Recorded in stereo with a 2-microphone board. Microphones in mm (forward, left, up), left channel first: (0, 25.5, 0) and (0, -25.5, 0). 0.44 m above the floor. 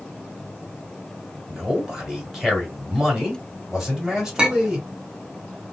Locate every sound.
1.5 s a man speaking: 5° right (ahead or behind), 2 m
4.4 s a clink: 15° right (ahead or behind), 0.7 m